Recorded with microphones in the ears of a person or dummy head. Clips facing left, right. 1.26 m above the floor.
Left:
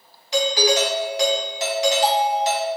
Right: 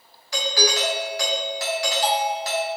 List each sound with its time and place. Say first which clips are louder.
0.3 s a doorbell: left 5 dB; 20° left (ahead or behind), 0.6 m